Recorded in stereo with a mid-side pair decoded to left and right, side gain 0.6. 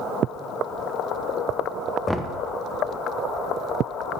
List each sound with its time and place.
2.1 s knocking: 5° right, 0.8 m